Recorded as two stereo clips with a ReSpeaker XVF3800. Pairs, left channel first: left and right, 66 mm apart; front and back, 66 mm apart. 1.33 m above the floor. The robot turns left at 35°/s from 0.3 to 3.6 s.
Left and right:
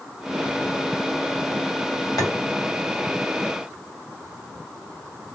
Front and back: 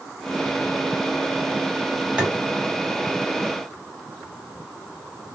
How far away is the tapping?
About 2.5 m.